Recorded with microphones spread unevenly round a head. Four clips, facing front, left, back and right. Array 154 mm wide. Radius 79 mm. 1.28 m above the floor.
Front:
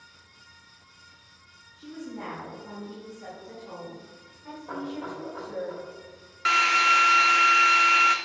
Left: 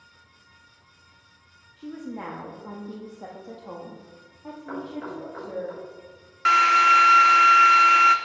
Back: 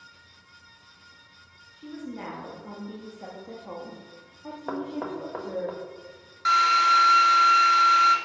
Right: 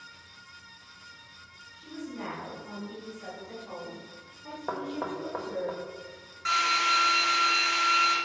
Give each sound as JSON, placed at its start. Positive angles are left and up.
{"t": 1.8, "sound": "a woman speaking", "azimuth_deg": 100, "distance_m": 2.0}
{"t": 4.7, "sound": "knocking", "azimuth_deg": -140, "distance_m": 1.3}
{"t": 6.5, "sound": "a drill", "azimuth_deg": 50, "distance_m": 1.0}